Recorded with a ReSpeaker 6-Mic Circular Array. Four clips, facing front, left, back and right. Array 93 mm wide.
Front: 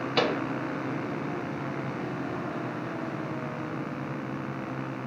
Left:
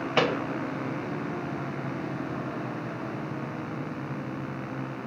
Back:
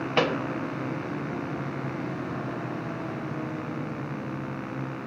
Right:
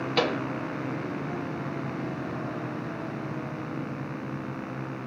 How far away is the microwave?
About 0.5 m.